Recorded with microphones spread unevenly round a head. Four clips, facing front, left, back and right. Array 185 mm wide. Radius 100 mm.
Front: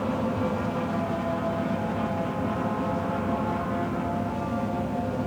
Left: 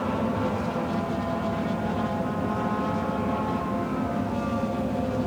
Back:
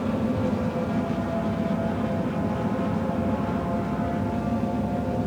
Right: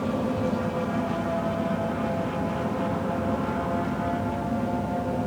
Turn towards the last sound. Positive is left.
No sound to turn to.